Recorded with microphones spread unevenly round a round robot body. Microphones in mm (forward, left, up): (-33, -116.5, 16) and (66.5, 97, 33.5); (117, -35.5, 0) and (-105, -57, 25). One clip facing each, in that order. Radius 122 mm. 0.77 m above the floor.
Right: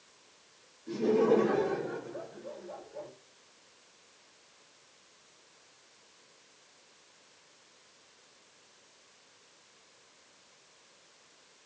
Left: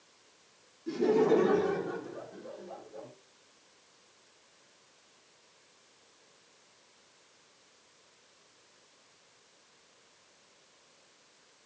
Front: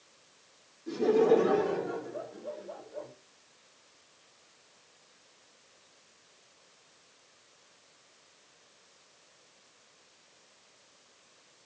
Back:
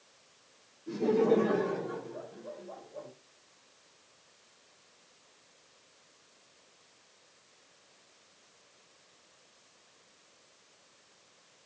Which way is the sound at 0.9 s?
75° left.